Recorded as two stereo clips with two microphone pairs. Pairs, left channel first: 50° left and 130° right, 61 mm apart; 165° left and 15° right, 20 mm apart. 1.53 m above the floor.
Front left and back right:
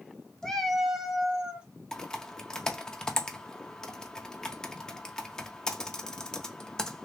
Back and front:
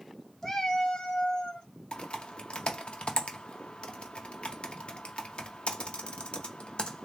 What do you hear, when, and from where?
0.4 s a cat meowing: 125° left, 0.8 m; by 1.7 s 165° left, 1.2 m
1.9 s typing on a keyboard: 130° left, 0.7 m